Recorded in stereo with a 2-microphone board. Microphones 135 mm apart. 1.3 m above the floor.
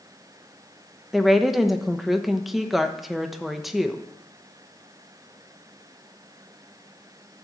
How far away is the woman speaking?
About 1.0 m.